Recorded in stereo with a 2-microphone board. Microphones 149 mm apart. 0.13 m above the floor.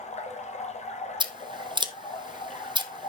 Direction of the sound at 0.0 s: 50° left (ahead or behind).